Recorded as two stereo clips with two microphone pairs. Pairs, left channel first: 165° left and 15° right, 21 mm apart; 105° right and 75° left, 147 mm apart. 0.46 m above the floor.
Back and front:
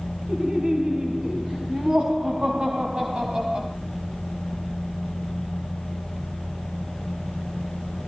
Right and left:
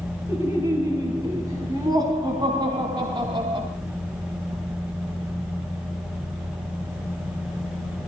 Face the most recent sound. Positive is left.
turn(degrees=25)